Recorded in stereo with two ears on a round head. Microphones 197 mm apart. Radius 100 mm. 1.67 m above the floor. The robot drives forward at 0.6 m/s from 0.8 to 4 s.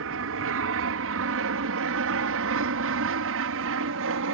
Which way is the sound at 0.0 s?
65° right (ahead or behind).